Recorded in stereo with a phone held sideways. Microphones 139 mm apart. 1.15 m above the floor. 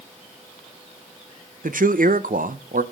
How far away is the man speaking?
About 0.7 m.